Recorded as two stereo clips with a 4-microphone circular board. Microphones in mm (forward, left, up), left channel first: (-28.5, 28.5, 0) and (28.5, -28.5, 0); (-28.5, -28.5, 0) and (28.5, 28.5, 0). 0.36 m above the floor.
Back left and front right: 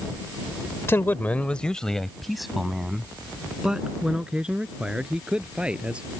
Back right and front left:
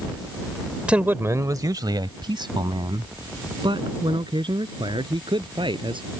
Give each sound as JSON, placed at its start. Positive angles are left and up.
{"t": 0.9, "sound": "a man speaking", "azimuth_deg": 110}